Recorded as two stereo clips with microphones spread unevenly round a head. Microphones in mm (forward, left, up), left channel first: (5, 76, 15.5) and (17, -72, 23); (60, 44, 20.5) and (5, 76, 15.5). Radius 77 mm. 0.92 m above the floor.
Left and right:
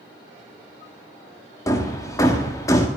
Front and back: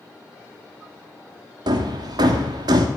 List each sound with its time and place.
1.7 s hammering: 165° left, 1.5 m